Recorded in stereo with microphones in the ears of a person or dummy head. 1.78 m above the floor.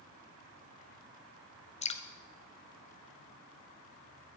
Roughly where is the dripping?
Left.